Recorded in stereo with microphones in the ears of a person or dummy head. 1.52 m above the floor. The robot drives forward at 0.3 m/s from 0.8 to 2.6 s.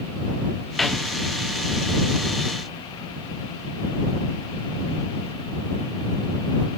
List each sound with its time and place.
0.8 s a snare drum: centre (ahead or behind), 0.7 m